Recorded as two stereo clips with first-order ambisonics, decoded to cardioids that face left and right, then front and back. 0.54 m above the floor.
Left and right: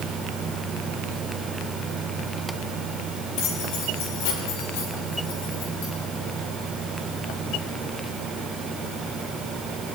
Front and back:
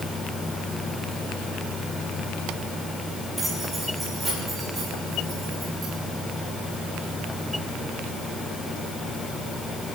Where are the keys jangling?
95° left, 9 m; by 5.9 s 105° left, 11 m.